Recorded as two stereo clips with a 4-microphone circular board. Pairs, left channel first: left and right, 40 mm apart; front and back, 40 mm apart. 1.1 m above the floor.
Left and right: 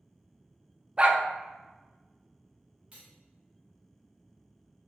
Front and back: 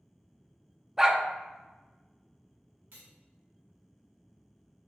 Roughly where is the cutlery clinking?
Behind right.